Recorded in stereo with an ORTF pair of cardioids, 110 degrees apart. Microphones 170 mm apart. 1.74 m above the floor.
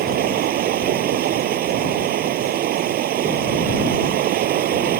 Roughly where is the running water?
Ahead right.